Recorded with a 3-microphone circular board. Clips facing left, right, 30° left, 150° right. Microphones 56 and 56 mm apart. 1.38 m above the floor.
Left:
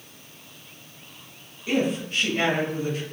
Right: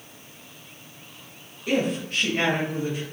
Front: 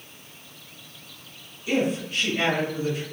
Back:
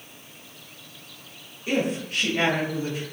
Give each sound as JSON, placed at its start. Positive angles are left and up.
{"t": 1.7, "sound": "a woman speaking", "azimuth_deg": -110, "distance_m": 0.9}